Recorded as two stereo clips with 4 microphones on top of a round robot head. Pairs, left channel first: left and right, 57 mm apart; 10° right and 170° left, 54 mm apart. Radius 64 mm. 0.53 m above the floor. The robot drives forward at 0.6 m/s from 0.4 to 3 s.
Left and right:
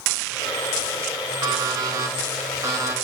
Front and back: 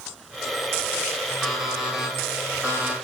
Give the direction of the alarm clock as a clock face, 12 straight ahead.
3 o'clock.